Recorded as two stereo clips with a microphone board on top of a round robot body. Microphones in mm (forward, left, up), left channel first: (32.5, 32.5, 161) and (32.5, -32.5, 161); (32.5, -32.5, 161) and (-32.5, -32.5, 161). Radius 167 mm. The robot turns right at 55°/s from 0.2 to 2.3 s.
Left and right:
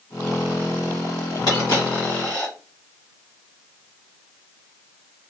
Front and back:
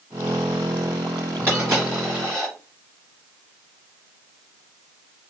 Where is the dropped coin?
120° left, 1.5 m; by 2.5 s 165° left, 1.5 m.